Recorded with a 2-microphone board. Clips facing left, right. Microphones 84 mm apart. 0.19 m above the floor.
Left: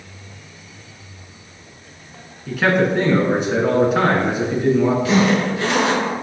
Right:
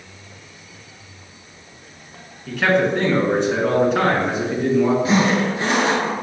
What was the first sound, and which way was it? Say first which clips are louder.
A man speaking: left 1 dB; 5° left (ahead or behind).